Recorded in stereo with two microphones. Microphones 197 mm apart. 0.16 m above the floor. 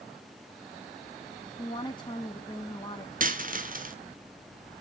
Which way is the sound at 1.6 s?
25° left (ahead or behind).